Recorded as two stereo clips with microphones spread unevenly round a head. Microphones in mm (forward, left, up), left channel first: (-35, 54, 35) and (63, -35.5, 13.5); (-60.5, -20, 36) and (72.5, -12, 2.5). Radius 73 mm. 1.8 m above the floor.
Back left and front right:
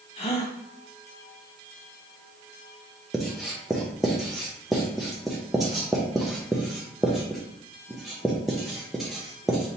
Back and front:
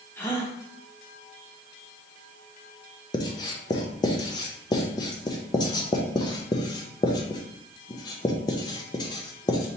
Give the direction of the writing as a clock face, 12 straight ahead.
5 o'clock.